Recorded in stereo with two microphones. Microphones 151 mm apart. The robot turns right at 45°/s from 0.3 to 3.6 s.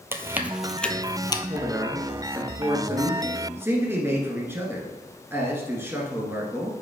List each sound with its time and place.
0.1 s chewing: 15° right (ahead or behind), 0.5 m; by 1.4 s 30° left (ahead or behind), 0.5 m
1.5 s a man speaking: 10° right (ahead or behind), 1.2 m; by 6.7 s 15° right (ahead or behind), 1.2 m